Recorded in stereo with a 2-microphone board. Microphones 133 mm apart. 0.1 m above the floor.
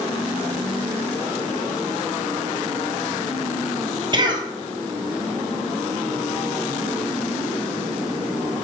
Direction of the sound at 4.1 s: 35° right (ahead or behind).